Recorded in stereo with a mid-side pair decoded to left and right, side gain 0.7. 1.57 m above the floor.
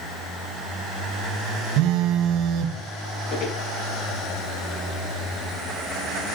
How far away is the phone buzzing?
About 1.5 m.